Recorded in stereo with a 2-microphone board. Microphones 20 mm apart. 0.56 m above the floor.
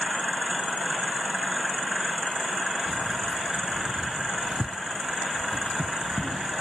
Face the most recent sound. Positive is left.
turn(degrees=-10)  # may be behind; listen again after turning